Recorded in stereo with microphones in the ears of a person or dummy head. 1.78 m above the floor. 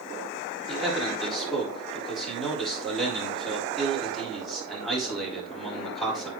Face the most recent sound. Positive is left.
turn(degrees=0)  # may be behind; listen again after turning